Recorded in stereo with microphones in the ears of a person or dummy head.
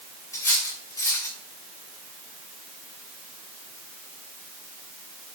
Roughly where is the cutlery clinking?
Centre.